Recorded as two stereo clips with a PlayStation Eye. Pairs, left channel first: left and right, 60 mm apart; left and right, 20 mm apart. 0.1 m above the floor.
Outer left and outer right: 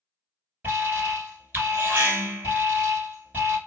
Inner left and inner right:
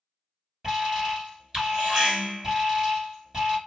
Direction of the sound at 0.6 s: 30° right (ahead or behind).